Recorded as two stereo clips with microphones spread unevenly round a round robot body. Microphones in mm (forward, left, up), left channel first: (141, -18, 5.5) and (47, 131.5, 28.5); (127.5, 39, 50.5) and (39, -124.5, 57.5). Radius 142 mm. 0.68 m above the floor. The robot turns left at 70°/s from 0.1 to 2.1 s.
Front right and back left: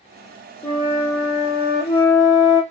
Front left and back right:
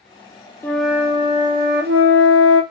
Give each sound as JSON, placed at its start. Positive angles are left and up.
{"t": 0.6, "sound": "a flute", "azimuth_deg": -15, "distance_m": 1.4}